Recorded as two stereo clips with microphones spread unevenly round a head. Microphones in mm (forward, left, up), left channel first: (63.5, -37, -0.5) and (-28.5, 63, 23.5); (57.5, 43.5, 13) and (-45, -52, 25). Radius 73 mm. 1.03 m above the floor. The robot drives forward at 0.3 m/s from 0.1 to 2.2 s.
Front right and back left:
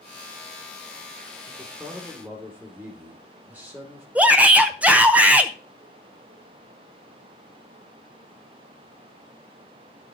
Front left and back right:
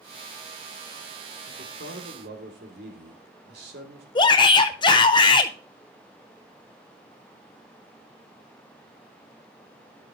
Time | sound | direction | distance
1.5 | a man speaking | 145° right | 3 m
4.2 | a shout | 45° left | 0.7 m